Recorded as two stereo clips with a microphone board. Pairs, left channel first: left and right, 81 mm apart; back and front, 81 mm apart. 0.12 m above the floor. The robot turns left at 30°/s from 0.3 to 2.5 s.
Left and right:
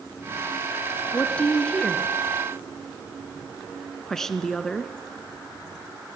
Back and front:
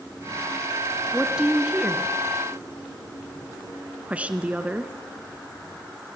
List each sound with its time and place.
1.1 s a woman speaking: 60° left, 1.1 m; by 4.9 s 15° left, 1.1 m